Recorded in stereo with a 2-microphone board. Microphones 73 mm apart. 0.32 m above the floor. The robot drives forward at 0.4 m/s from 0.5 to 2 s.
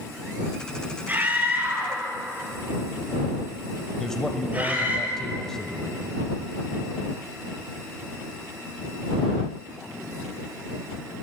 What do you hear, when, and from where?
1.1 s a scream: 25° right (ahead or behind), 6.5 m
4.0 s a man speaking: 10° left (ahead or behind), 1.6 m